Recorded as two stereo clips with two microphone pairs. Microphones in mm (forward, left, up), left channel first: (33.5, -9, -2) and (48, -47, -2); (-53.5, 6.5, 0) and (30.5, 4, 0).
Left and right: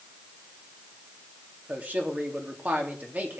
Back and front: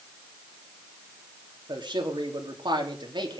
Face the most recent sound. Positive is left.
turn(degrees=-25)